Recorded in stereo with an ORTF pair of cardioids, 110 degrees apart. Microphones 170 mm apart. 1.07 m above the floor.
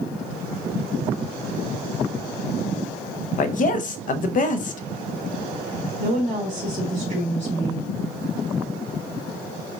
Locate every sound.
3.4 s a woman speaking: 50° left, 0.6 m
6.0 s a woman speaking: 45° right, 1.7 m